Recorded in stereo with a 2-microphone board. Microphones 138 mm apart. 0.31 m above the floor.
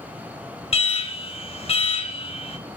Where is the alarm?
45° left (ahead or behind), 1.5 m.